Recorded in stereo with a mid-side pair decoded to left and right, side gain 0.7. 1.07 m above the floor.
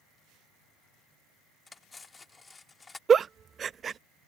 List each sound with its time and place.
1.7 s cutlery clinking: 20° left
3.1 s a giggle: 30° right